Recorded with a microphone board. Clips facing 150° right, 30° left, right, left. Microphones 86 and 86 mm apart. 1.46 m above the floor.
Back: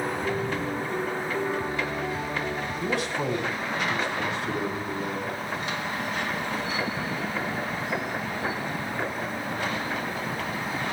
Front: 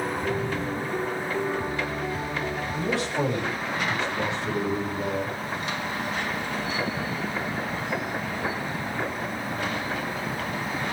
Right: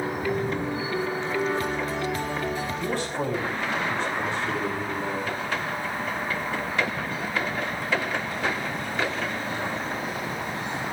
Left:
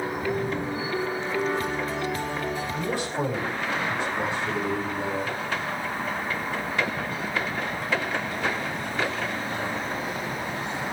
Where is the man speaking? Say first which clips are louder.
Front 3 dB, even; 10° left, 6 m.